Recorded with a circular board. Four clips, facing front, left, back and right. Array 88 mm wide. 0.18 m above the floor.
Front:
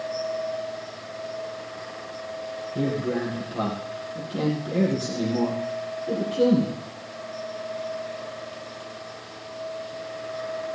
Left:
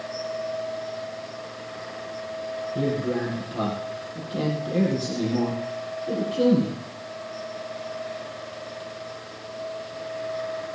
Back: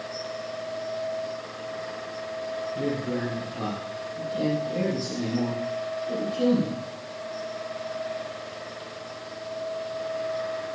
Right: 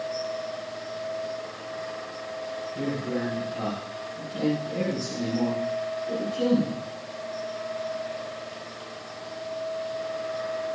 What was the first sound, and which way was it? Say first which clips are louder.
A man speaking: left 4 dB, front 5 dB; 40° left.